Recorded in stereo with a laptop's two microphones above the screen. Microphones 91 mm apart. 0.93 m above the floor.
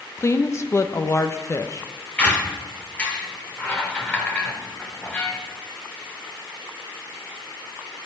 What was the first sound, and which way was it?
A woman speaking, 30° left (ahead or behind).